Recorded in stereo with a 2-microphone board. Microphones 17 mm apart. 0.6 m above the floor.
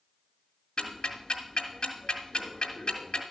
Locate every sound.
0.8 s ticking: 75° left (ahead or behind), 1.9 m